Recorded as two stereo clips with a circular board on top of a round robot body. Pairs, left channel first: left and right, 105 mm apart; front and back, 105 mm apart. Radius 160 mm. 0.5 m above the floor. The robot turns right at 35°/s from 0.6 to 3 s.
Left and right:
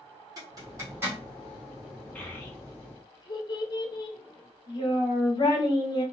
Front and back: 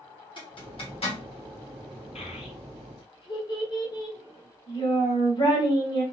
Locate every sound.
0.4 s a zipper: 35° right, 1.9 m; by 1.2 s 15° right, 1.9 m
2.1 s a child speaking: 15° left, 1.5 m; by 6.0 s 45° left, 1.5 m